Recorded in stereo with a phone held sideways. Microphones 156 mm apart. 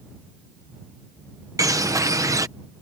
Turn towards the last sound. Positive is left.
turn(degrees=-20)  # may be behind; listen again after turning